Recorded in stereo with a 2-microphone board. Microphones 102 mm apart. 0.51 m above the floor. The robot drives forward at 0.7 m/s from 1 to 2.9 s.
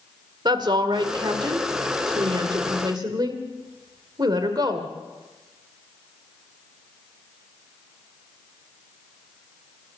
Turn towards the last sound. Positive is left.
turn(degrees=-45)  # may be behind; listen again after turning